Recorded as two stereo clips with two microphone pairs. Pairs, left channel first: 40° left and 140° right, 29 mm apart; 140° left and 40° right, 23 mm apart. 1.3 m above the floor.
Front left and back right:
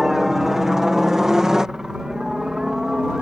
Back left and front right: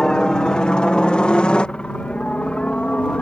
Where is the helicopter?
150° left; by 3.2 s 155° left.